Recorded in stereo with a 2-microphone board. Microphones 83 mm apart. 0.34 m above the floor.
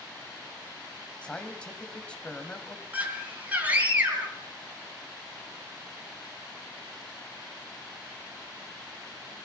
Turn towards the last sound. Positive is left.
turn(degrees=-20)  # may be behind; listen again after turning